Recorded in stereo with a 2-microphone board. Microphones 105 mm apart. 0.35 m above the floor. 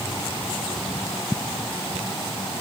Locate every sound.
Only background noise.